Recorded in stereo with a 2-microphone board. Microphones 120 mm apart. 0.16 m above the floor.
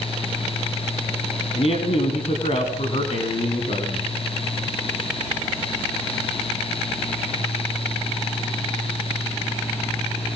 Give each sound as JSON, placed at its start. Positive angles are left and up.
{"t": 1.6, "sound": "a man speaking", "side_deg": 60, "distance_m": 6.5}